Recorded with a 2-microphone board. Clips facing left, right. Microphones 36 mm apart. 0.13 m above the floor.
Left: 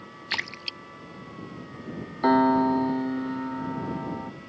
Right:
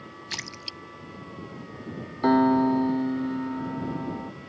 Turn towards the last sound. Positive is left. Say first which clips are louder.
# even
turn(degrees=10)  # may be behind; listen again after turning